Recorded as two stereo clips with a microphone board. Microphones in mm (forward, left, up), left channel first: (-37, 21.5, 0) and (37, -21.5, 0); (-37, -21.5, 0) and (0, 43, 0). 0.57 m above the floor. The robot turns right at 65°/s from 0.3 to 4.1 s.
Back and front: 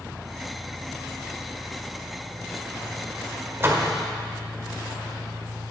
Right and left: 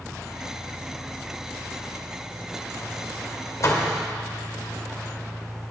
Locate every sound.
0.0 s an engine running: 15° right, 5.5 m; by 5.7 s 130° right, 5.5 m
3.6 s a door slam: 90° right, 1.7 m; by 3.9 s 65° right, 1.7 m